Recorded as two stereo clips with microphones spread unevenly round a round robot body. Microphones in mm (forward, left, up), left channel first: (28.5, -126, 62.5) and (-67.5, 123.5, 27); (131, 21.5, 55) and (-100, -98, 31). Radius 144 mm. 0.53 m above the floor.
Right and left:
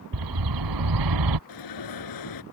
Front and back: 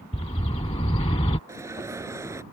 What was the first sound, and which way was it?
A bird, 95° left.